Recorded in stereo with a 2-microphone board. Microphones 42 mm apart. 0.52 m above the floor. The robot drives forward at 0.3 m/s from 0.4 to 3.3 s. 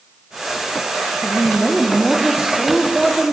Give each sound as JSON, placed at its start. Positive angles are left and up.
{"t": 1.2, "sound": "a woman speaking", "side_deg": -10, "distance_m": 0.7}